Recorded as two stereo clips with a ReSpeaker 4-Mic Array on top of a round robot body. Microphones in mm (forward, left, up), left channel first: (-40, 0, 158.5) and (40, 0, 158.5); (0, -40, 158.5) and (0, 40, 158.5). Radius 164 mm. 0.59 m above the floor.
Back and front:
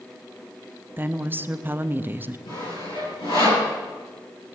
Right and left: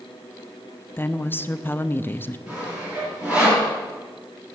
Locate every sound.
1.0 s a woman speaking: 45° right, 1.0 m
2.5 s sawing: 165° left, 8.5 m